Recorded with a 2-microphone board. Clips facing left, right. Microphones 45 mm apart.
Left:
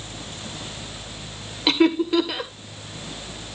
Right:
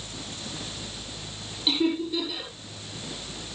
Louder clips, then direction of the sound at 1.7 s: Left 7 dB; 85° left.